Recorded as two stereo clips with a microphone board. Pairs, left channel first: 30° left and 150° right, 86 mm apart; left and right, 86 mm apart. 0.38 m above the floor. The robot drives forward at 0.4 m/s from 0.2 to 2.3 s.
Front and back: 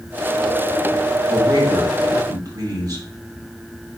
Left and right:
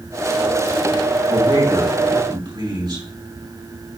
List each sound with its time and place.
1.3 s a man speaking: 105° right, 3.5 m; by 3.1 s 110° right, 3.5 m